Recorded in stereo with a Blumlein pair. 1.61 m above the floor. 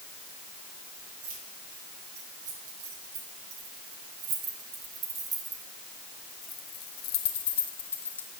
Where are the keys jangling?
55° right, 4.5 m; by 8.3 s 75° left, 2 m.